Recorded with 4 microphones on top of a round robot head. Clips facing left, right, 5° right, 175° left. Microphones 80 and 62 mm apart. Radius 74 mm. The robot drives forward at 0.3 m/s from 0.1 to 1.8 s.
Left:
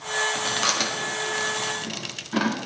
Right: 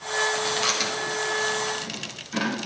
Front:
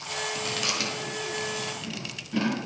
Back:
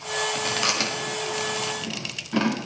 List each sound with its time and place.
0.3 s chewing: 130° left, 1.5 m; by 2.6 s 145° left, 1.8 m